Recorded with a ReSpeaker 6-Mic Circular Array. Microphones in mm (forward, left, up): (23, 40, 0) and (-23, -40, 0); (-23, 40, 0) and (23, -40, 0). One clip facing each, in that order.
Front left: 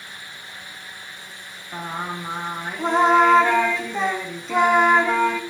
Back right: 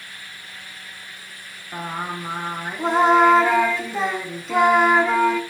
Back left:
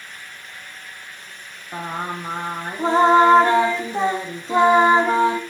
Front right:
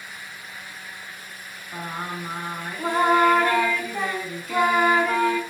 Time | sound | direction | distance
1.7 | singing | 155° left | 1.6 m